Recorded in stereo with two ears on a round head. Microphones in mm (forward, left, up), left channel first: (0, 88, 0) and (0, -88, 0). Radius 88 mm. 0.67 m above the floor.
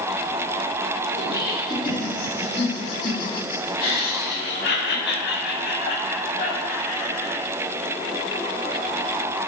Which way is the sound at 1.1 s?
20° left (ahead or behind).